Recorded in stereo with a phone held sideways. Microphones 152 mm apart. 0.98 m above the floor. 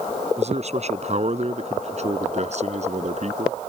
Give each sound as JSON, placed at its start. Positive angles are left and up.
{"t": 0.4, "sound": "a man speaking", "side_deg": -45}